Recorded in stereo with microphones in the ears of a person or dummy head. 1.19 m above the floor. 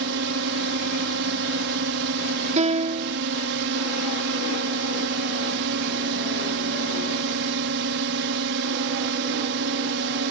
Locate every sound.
0.0 s a drone: 60° right (ahead or behind)
2.6 s a piano: 40° right (ahead or behind)